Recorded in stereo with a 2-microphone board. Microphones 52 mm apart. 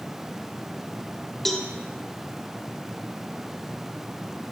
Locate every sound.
1.4 s a cowbell: 5° left (ahead or behind), 0.7 m